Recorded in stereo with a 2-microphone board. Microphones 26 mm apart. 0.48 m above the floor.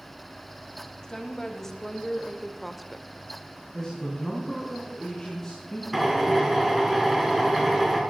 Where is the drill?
Centre (ahead or behind), 4.5 m.